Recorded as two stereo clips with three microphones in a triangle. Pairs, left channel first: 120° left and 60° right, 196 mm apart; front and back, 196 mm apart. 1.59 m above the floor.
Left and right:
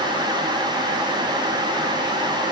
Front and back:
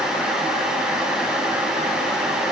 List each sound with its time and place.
Only background noise.